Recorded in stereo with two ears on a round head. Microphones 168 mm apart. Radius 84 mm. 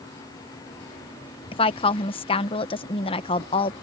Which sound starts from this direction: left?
A woman speaking, at 1.5 s.